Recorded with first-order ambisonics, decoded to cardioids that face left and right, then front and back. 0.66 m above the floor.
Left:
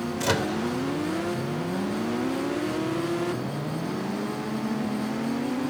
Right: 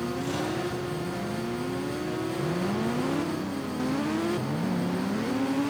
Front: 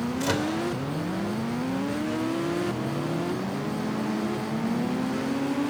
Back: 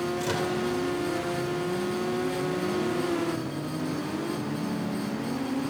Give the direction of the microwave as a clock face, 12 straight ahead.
10 o'clock.